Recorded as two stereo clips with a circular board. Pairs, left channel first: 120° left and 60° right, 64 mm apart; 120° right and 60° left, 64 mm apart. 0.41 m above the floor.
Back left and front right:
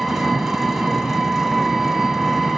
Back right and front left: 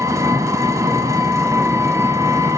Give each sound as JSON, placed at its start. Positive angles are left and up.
{"t": 0.0, "sound": "an engine running", "azimuth_deg": 25, "distance_m": 0.9}